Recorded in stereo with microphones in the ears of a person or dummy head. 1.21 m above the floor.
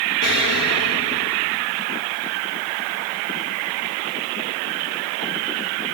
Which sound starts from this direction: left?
An explosion, at 0.2 s.